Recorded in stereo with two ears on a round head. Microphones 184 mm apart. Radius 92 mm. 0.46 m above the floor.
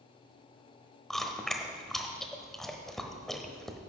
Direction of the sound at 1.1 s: Centre (ahead or behind).